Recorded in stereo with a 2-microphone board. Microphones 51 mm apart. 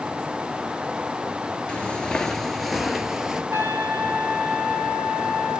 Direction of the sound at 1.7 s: 20° left (ahead or behind).